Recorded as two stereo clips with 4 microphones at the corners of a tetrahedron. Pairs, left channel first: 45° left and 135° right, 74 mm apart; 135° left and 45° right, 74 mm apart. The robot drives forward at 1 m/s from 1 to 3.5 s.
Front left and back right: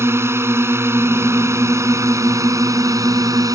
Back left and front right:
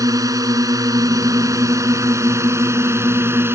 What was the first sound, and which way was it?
A drone, 80° right.